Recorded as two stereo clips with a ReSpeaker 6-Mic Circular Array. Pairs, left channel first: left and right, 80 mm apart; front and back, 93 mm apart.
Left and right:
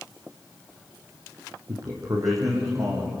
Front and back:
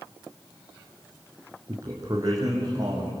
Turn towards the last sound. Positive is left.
turn(degrees=-135)